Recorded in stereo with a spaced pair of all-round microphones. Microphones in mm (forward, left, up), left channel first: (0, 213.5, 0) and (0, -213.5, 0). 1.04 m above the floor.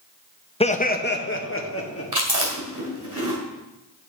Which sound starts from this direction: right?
Chewing, at 2.1 s.